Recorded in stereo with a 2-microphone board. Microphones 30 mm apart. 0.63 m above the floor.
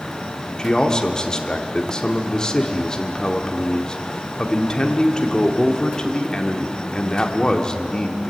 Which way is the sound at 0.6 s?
25° left (ahead or behind).